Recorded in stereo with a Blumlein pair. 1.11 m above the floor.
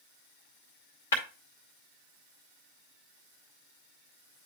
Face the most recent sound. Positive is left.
turn(degrees=65)